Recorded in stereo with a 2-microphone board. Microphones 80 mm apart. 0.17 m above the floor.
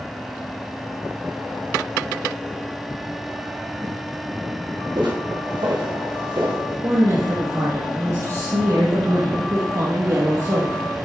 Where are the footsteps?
70° right (ahead or behind), 4 m; by 6.6 s 85° right, 4 m.